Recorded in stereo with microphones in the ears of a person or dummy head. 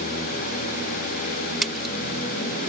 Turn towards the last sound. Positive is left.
turn(degrees=5)  # may be behind; listen again after turning